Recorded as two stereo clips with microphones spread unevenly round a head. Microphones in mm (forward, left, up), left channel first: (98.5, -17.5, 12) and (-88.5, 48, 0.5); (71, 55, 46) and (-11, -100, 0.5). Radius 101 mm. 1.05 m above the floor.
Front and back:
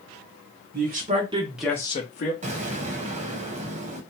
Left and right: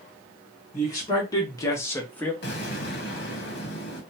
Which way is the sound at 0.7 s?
145° left.